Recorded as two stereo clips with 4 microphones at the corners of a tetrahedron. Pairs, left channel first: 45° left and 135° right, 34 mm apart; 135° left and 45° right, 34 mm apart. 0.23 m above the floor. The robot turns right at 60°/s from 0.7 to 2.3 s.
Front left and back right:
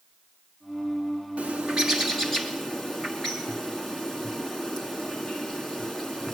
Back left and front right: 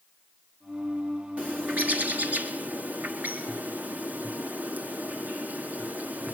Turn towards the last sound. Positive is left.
turn(degrees=-30)